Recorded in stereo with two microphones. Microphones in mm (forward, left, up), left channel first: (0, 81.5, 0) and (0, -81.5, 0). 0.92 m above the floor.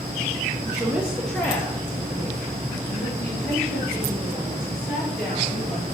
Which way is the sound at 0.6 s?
20° right (ahead or behind).